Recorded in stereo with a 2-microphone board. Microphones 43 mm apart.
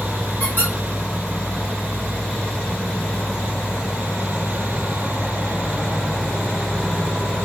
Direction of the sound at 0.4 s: 60° left (ahead or behind).